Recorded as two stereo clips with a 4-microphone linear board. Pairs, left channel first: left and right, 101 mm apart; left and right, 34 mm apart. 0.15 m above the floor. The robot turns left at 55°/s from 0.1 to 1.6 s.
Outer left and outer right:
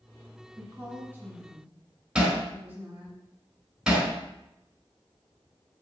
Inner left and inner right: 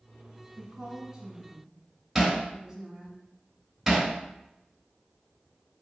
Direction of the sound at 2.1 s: 5° right (ahead or behind).